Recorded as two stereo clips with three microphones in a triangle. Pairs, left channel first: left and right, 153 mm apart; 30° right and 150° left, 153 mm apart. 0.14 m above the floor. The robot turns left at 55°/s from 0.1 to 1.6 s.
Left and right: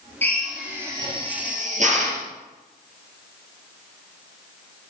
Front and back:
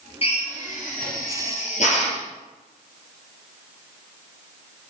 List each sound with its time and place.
0.2 s a drill: 15° left, 2.5 m; by 2.2 s 60° right, 2.5 m